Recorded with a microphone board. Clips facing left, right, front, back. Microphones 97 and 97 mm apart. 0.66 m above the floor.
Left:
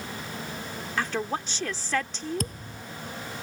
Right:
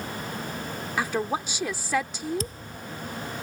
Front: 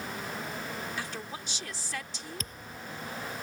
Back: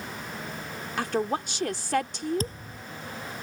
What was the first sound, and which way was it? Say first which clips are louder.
A woman speaking: right 2 dB, back 11 dB; 170° right.